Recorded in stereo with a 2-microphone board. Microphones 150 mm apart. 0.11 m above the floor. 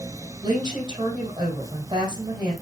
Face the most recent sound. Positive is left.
turn(degrees=-30)  # may be behind; listen again after turning